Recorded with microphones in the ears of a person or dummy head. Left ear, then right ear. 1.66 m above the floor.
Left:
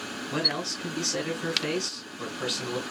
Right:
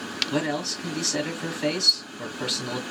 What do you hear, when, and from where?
0.3 s a man speaking: 25° right (ahead or behind), 1.7 m